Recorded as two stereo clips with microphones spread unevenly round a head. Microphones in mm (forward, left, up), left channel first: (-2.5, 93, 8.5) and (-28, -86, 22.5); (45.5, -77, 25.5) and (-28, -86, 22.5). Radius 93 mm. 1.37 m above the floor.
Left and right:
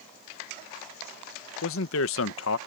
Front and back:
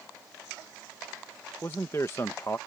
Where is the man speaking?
80° left.